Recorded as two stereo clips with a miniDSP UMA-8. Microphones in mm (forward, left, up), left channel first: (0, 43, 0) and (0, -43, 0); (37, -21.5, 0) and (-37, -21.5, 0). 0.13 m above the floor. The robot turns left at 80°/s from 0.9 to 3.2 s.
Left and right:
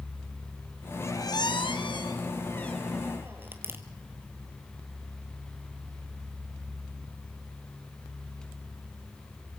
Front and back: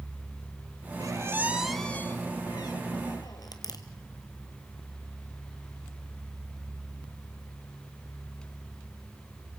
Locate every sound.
1.0 s a squeak: 150° left, 2 m; by 3.8 s 25° right, 2 m